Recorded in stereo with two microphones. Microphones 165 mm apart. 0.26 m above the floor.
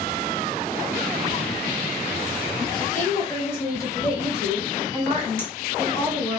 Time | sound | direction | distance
2.8 | a woman speaking | 10° left (ahead or behind) | 1.6 m
5.4 | a clink | 15° left (ahead or behind) | 1.0 m